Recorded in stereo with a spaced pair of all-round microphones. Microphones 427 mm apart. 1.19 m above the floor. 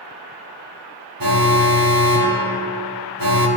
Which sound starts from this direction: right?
An alarm, at 1.2 s.